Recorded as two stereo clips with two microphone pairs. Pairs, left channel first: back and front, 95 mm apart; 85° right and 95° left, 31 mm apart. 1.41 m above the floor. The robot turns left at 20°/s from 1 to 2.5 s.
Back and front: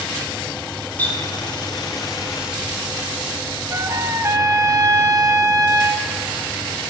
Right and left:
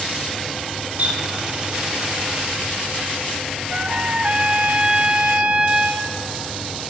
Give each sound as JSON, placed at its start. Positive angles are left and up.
{"t": 1.0, "sound": "a running tap", "azimuth_deg": 105, "distance_m": 2.5}
{"t": 3.7, "sound": "a trumpet", "azimuth_deg": 50, "distance_m": 1.0}